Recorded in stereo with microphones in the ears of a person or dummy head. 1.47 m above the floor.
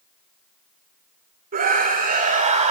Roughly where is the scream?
Right.